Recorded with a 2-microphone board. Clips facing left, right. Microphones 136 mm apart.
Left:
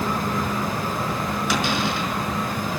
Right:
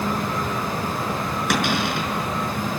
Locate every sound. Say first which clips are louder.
1.5 s a cupboard door: right 2 dB; 65° right (ahead or behind), 5 m